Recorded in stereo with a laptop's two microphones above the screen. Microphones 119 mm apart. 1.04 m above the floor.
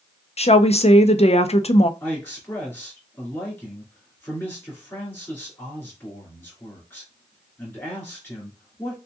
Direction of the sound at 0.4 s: 55° left (ahead or behind).